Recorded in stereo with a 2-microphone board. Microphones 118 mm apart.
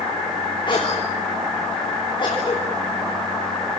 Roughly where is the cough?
Left.